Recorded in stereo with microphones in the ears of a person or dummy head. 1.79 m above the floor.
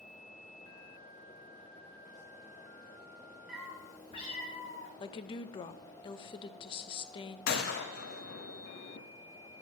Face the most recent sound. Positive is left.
turn(degrees=50)  # may be behind; listen again after turning